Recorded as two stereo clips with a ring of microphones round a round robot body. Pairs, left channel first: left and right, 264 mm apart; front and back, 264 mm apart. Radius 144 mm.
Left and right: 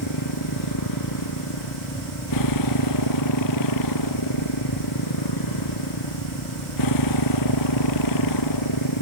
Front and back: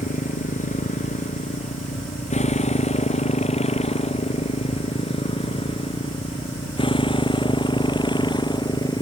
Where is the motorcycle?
60° left; by 9.0 s 75° left.